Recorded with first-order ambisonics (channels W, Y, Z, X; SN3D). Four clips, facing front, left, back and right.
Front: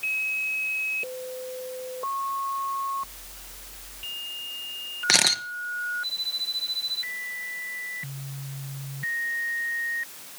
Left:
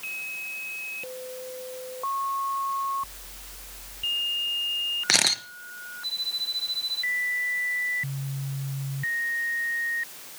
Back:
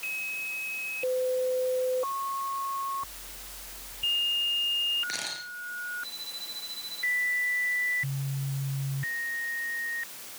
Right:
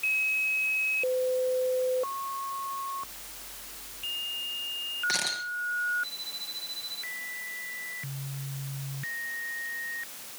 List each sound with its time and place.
5.1 s a camera shutter: 40° left, 1.3 m